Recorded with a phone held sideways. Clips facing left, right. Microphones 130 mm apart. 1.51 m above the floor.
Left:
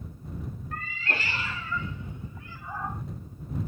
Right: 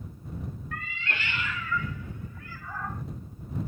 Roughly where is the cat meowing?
Left.